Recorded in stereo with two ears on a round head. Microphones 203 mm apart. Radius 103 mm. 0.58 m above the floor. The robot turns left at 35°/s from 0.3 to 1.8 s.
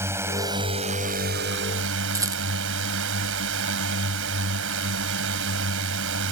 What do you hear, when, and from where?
0.0 s a drone: 10° right; by 6.3 s 65° right
2.1 s a rattle: 15° right (ahead or behind)